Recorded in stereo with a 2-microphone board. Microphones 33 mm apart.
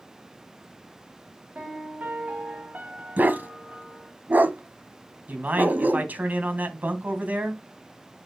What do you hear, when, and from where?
1.6 s a piano: 60° right (ahead or behind), 3 m
3.2 s a dog barking: 75° right (ahead or behind), 1.1 m
5.3 s a man speaking: 65° right (ahead or behind), 3 m